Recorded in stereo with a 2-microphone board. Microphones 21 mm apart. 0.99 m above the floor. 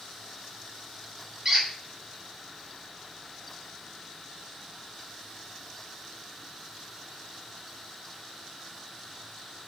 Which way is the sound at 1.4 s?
20° right (ahead or behind).